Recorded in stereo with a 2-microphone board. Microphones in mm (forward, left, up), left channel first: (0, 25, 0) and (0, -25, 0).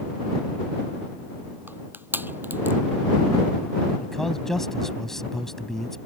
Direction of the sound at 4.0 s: 10° left (ahead or behind).